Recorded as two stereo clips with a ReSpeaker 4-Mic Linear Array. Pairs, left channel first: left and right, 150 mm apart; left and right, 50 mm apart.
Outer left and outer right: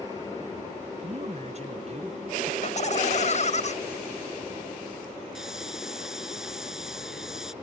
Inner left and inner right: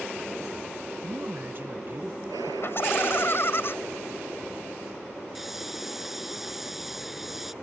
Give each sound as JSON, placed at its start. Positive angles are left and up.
{"t": 1.0, "sound": "a man speaking", "side_deg": -45}
{"t": 2.6, "sound": "laughter", "side_deg": 50}
{"t": 5.3, "sound": "a hiss", "side_deg": -5}